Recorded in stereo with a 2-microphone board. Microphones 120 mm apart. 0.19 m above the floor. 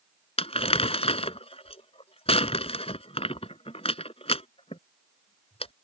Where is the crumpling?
55° left (ahead or behind).